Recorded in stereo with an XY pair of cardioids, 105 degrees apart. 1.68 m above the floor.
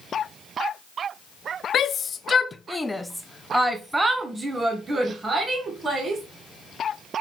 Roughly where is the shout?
Ahead left.